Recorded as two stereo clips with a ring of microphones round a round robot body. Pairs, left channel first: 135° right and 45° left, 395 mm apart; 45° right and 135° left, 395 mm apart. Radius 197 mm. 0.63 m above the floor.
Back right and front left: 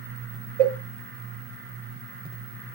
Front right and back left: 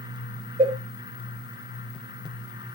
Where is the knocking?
I don't hear knocking.